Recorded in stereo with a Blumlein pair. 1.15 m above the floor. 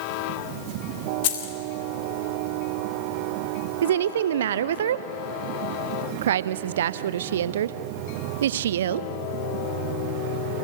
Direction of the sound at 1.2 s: 50° left.